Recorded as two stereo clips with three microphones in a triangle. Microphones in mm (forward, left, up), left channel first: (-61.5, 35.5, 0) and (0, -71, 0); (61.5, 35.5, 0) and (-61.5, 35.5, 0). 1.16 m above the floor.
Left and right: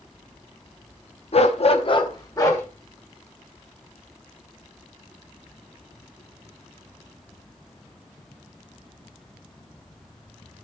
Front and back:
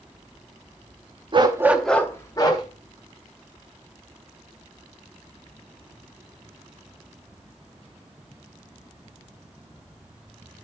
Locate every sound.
1.3 s a dog barking: 140° left, 0.8 m; by 2.6 s 55° left, 1.5 m